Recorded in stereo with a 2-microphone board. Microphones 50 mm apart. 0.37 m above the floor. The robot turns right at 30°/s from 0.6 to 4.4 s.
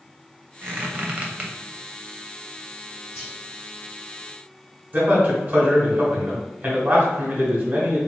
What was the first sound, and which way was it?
A squeak, 45° right (ahead or behind).